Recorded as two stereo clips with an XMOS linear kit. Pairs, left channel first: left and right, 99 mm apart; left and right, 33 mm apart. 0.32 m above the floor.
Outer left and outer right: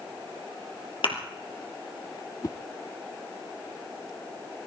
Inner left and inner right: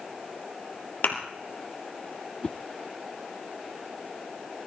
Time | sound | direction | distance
1.0 | a thud | 70° left (ahead or behind) | 3 m
2.4 | a whoosh | 35° left (ahead or behind) | 0.5 m